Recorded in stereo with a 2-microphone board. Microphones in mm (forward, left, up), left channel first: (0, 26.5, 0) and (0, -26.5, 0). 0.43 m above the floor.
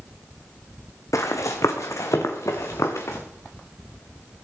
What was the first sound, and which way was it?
Running footsteps, 80° left.